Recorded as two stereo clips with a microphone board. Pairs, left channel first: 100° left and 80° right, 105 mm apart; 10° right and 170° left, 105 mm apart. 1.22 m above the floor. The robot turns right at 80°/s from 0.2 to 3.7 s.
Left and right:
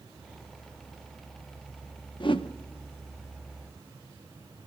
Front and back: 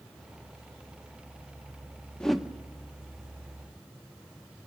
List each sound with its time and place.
2.2 s a whoosh: 70° left, 0.9 m; by 2.5 s 90° left, 0.9 m